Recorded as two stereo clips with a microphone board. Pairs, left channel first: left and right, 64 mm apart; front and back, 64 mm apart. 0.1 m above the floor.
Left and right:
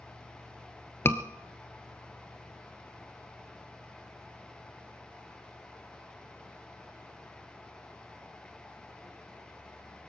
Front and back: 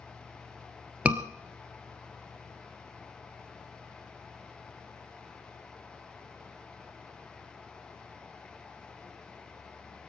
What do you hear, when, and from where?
1.1 s a scream: 120° left, 1.4 m